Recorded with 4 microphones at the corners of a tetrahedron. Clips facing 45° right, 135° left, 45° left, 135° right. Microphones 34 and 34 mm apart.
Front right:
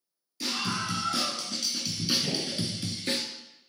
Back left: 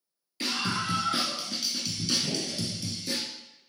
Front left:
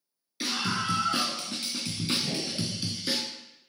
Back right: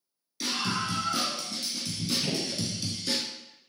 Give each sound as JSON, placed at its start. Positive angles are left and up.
{"t": 0.4, "sound": "a scream", "azimuth_deg": 100, "distance_m": 3.0}
{"t": 2.2, "sound": "a gunshot", "azimuth_deg": -110, "distance_m": 2.0}